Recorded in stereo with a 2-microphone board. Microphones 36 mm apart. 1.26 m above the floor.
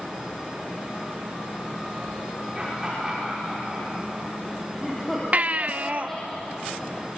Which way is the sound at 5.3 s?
40° right (ahead or behind).